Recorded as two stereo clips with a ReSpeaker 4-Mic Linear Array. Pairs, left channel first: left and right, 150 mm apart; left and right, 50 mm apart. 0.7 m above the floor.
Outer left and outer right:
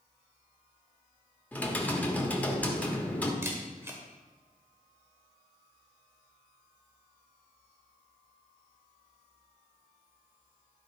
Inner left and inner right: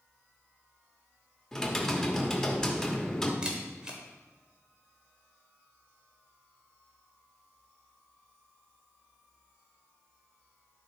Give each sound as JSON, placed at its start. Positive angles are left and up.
{"t": 1.5, "sound": "typing on a keyboard", "side_deg": 10, "distance_m": 1.2}
{"t": 3.4, "sound": "a camera shutter", "side_deg": -15, "distance_m": 1.6}